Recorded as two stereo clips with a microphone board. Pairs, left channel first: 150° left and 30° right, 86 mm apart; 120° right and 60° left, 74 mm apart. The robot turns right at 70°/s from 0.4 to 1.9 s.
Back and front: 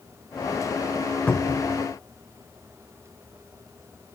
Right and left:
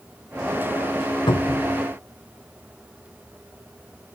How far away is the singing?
I don't hear singing.